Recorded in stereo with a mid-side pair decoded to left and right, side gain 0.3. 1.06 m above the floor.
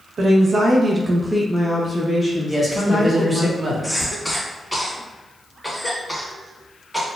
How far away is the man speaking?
About 1.4 m.